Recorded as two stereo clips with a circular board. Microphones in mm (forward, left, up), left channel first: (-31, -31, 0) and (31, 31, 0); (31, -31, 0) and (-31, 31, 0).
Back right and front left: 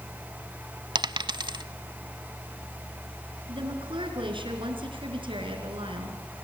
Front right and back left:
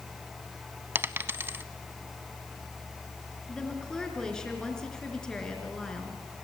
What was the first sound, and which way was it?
A dropped coin, 70° left.